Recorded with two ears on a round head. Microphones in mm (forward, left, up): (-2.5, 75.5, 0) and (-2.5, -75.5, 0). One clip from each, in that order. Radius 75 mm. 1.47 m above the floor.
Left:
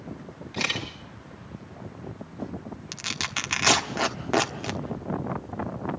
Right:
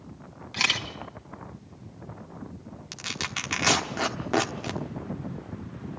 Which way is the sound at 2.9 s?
5° left (ahead or behind).